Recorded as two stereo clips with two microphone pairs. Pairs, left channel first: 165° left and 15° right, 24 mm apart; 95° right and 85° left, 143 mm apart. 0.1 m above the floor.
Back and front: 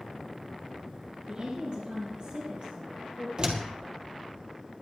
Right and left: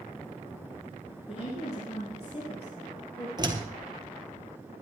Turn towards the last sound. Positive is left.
turn(degrees=30)